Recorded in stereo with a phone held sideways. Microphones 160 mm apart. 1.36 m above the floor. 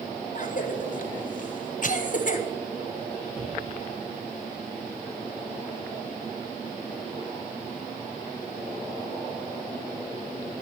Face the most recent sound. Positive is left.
turn(degrees=-85)